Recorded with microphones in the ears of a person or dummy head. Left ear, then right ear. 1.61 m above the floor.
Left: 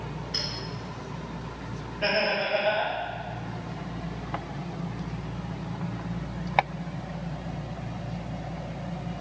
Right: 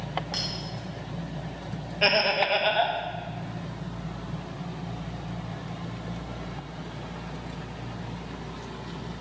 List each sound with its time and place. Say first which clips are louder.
0.3 s a clink: left 2 dB; 60° right (ahead or behind), 2.5 m
2.0 s laughter: right 3 dB; 55° right (ahead or behind), 0.8 m